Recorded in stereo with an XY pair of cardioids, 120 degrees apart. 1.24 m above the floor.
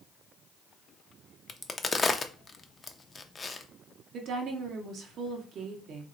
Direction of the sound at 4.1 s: 60° right.